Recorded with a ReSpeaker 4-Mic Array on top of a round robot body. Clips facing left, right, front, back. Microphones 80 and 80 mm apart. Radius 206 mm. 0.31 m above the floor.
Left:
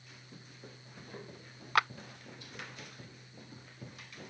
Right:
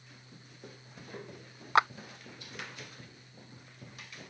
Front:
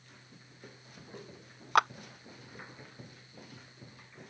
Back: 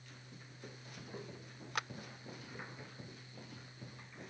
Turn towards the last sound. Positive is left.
turn(degrees=-25)